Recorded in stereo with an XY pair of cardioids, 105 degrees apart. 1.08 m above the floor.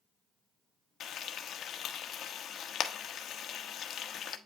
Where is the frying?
65° left, 1.2 m.